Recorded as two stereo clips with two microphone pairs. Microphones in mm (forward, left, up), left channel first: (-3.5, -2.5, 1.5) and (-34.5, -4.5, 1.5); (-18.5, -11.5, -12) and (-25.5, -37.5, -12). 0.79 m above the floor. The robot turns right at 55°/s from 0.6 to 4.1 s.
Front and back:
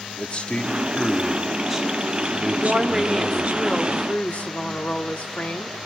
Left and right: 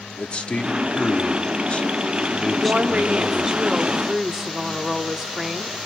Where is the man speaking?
50° left, 2 m; by 3.5 s 150° right, 2 m.